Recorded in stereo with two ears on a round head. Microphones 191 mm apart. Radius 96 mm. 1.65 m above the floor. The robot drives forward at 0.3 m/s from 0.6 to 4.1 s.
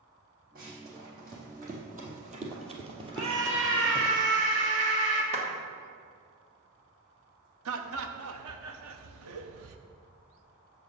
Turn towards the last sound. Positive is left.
turn(degrees=-70)  # may be behind; listen again after turning